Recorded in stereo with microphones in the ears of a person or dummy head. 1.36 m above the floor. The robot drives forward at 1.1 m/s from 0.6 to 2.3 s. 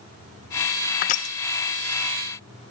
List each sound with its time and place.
1.0 s crushing: 45° left (ahead or behind), 0.6 m; by 1.4 s 30° left (ahead or behind), 0.8 m